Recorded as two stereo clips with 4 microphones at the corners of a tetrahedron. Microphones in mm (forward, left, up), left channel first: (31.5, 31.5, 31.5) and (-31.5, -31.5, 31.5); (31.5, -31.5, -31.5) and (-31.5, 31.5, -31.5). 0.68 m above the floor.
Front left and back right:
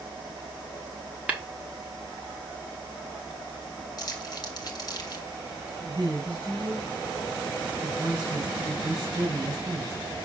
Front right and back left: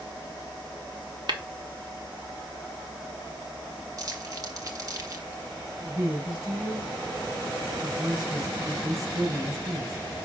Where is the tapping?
150° left, 1.3 m.